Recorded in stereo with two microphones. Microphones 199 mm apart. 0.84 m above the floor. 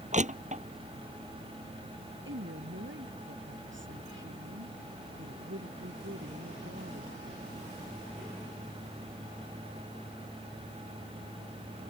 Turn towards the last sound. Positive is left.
turn(degrees=-75)  # may be behind; listen again after turning